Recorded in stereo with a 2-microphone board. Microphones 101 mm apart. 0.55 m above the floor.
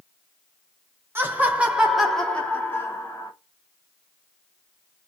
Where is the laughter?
20° right (ahead or behind), 1.2 m; by 3.3 s 35° left (ahead or behind), 1.2 m.